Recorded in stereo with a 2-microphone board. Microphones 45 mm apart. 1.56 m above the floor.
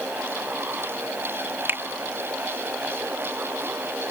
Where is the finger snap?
60° right (ahead or behind).